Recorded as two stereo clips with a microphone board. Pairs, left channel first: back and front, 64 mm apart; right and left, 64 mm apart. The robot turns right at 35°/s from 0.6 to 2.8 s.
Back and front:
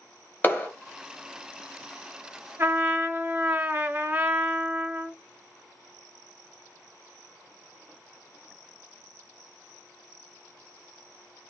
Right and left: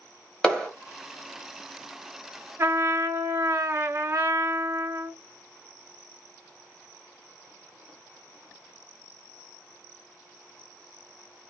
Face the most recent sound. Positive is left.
turn(degrees=55)